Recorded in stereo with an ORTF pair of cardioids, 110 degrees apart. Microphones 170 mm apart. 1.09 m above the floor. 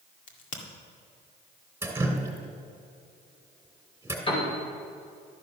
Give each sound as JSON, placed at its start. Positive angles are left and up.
{"t": 0.3, "sound": "a crack", "azimuth_deg": 50, "distance_m": 2.0}
{"t": 1.8, "sound": "dripping", "azimuth_deg": -15, "distance_m": 2.5}
{"t": 4.3, "sound": "a piano", "azimuth_deg": 30, "distance_m": 4.5}